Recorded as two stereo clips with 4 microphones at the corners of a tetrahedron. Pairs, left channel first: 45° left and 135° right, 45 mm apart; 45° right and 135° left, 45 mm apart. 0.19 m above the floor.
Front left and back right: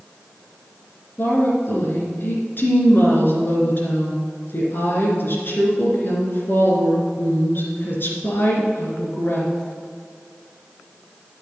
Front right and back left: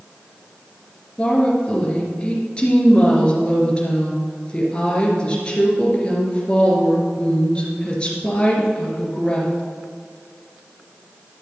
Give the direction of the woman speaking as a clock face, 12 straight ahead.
11 o'clock.